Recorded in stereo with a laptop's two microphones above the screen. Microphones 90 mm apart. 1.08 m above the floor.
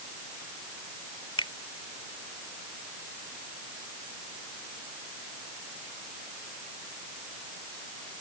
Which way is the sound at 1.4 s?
70° left (ahead or behind).